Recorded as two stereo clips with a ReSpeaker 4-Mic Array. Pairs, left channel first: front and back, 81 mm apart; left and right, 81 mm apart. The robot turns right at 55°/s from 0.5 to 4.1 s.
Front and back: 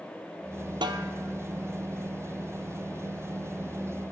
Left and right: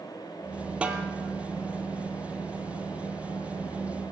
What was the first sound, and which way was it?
A snare drum, 165° right.